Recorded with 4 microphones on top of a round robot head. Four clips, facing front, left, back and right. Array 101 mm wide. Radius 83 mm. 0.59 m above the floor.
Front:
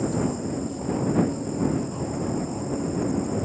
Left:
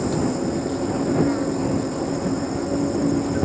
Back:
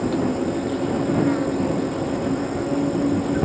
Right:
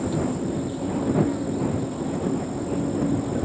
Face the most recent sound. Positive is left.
turn(degrees=150)